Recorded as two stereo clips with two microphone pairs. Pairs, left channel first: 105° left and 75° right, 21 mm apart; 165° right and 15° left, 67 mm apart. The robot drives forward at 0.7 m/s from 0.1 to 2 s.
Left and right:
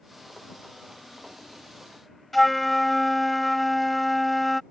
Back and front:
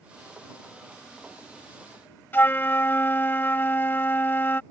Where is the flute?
165° right.